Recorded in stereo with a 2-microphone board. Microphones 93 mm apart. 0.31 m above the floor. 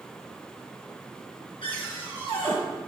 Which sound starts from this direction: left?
A cupboard door, at 1.6 s.